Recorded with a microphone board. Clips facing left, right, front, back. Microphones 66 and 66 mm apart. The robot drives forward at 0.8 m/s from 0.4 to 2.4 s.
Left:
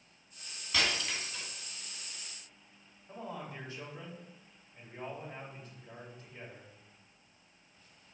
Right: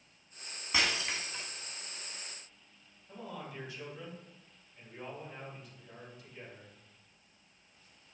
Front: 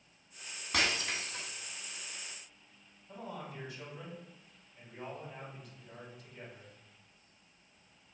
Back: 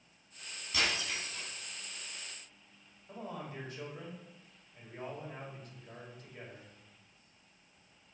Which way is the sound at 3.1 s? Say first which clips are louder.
Left 2 dB, back 1 dB; 145° left.